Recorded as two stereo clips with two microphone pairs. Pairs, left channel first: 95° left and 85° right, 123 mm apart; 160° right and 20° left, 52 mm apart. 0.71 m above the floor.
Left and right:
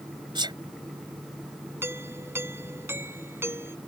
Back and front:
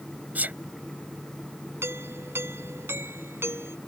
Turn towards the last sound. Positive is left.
turn(degrees=-15)